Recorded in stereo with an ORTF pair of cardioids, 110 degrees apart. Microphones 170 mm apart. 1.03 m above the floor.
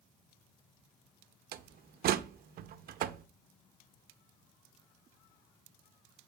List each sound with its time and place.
1.5 s a door slam: 65° right, 1.0 m